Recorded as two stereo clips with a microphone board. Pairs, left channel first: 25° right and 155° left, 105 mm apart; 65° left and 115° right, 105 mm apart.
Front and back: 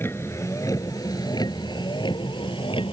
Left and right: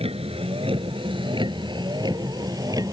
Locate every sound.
0.0 s a vehicle: 90° right; by 2.9 s 60° right